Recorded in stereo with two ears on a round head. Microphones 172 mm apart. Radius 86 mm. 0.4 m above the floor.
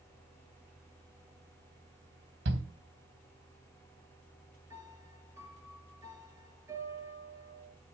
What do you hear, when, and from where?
2.5 s a shout: 65° right (ahead or behind), 3 m
4.7 s a piano: 15° right (ahead or behind), 3.5 m